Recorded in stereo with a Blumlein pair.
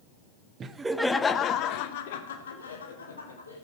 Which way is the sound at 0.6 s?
25° right.